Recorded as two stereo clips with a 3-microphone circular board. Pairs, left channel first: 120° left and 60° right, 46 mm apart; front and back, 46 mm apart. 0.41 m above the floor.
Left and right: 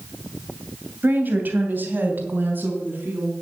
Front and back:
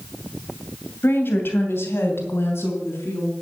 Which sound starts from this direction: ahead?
A woman speaking, at 1.0 s.